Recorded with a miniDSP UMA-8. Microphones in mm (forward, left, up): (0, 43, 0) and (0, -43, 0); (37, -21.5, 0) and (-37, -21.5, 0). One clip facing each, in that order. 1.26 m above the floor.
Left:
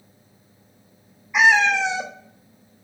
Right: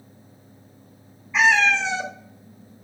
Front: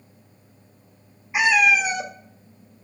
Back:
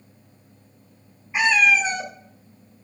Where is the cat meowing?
50° left, 0.5 m.